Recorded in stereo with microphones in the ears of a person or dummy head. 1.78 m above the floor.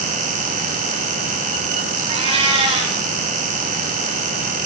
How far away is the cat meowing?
About 4.5 m.